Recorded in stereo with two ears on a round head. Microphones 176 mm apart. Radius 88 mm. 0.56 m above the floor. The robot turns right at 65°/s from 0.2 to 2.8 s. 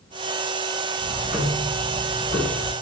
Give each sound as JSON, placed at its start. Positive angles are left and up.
{"t": 1.0, "sound": "ticking", "azimuth_deg": -35, "distance_m": 1.1}